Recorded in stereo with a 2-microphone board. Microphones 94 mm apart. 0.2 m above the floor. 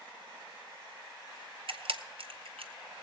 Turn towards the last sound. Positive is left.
turn(degrees=-75)  # may be behind; listen again after turning